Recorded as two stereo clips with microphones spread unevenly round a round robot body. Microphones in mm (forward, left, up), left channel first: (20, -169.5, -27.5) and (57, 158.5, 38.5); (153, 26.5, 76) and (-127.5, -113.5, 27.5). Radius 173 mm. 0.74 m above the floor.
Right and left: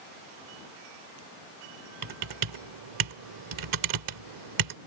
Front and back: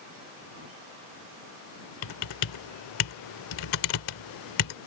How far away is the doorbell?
No doorbell in this recording.